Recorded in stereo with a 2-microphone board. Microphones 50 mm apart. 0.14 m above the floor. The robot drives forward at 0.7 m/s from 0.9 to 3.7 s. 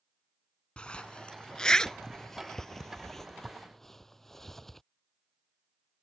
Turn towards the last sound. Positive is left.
turn(degrees=5)  # may be behind; listen again after turning